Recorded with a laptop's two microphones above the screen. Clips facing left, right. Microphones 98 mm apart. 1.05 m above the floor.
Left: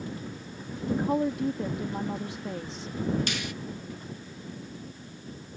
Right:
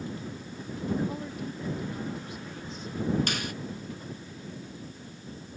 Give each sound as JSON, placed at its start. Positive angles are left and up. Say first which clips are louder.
{"t": 0.9, "sound": "a woman speaking", "louder": "left 6 dB", "side_deg": 75}
{"t": 3.3, "sound": "a finger snap", "louder": "right 1 dB", "side_deg": -45}